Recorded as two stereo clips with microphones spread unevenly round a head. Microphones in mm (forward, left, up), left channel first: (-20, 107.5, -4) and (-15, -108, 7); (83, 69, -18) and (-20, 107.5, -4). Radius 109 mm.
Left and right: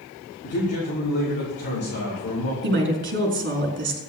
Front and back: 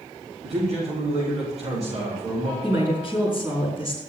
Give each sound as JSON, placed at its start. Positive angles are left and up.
{"t": 0.4, "sound": "a man speaking", "azimuth_deg": 145, "distance_m": 6.0}
{"t": 2.6, "sound": "a woman speaking", "azimuth_deg": -130, "distance_m": 4.5}